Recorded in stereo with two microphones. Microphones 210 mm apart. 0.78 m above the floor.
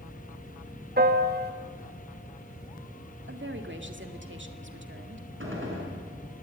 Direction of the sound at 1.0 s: 50° right (ahead or behind).